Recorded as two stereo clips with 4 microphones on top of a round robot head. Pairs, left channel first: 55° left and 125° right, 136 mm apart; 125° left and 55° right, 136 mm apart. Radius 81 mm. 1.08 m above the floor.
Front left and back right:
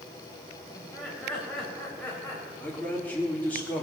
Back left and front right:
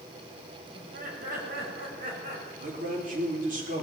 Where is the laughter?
35° right, 5 m; by 2.5 s 25° right, 4.5 m.